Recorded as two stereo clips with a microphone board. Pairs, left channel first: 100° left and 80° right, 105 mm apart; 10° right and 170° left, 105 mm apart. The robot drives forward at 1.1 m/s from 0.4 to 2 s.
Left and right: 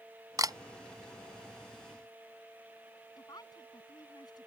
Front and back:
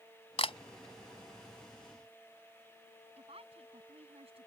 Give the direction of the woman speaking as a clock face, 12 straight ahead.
7 o'clock.